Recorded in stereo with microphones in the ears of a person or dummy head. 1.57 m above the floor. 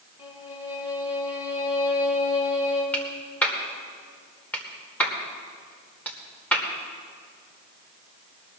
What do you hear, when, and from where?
0.2 s a violin: 35° left (ahead or behind), 4 m
2.9 s a clap: 10° left (ahead or behind), 2.5 m